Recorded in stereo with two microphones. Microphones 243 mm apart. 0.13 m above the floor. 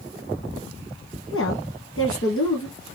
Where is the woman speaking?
60° left (ahead or behind), 2 m.